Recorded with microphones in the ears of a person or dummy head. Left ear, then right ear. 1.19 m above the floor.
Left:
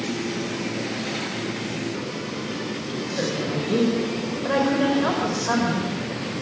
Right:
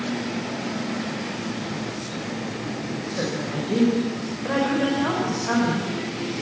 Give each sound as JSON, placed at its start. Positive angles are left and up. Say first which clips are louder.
{"t": 3.1, "sound": "a woman speaking", "louder": "left 2 dB", "side_deg": 15, "distance_m": 4.5}